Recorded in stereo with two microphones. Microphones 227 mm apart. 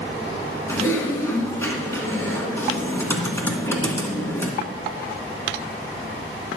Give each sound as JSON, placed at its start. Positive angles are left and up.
{"t": 0.7, "sound": "typing on a keyboard", "side_deg": 10, "distance_m": 1.6}